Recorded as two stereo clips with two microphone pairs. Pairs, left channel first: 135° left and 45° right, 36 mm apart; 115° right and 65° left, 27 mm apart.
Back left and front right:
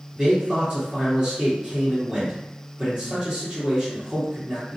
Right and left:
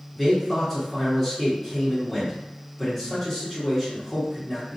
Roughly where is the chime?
No chime in this recording.